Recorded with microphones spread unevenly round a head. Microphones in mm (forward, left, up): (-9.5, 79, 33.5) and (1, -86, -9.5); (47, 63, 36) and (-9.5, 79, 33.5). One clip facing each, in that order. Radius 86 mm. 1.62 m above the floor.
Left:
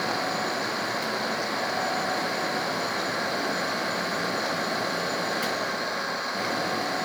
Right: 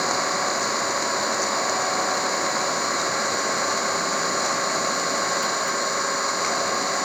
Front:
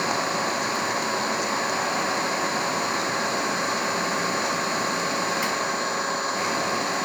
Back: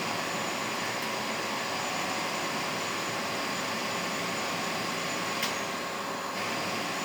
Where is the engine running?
60° right.